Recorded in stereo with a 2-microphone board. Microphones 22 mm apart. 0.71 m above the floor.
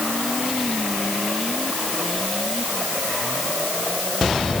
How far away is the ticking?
I don't hear ticking.